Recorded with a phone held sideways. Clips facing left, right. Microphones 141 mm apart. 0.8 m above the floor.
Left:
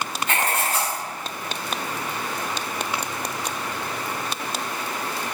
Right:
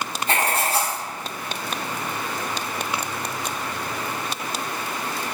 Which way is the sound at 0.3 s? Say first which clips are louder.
Right 3 dB; 35° right (ahead or behind).